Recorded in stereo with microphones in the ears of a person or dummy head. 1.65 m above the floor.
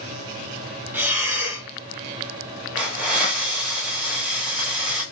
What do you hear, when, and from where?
0.9 s breathing: 5° right (ahead or behind), 0.8 m
2.8 s a hiss: centre (ahead or behind), 1.4 m